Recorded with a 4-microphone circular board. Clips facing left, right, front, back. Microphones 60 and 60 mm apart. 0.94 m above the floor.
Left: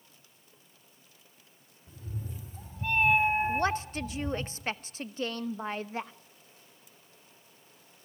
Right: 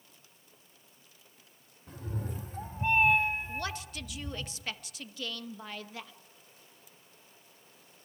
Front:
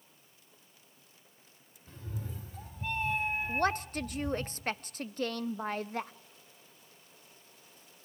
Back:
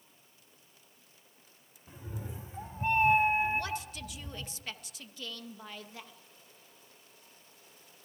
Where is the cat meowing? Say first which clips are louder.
Right 4 dB, even; 105° right, 1.5 m; by 4.5 s 95° left, 1.7 m.